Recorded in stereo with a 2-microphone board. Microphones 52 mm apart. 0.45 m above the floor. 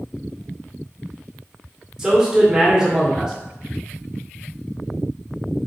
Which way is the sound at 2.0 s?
15° right (ahead or behind).